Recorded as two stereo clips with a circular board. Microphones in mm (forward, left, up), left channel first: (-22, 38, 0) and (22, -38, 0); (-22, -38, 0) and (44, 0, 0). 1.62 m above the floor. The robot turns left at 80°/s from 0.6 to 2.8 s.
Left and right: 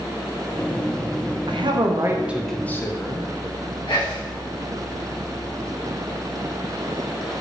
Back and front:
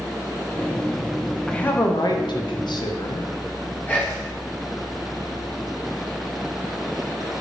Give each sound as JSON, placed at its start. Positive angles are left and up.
{"t": 1.5, "sound": "a man speaking", "azimuth_deg": -70, "distance_m": 0.6}
{"t": 3.9, "sound": "whispering", "azimuth_deg": 145, "distance_m": 1.6}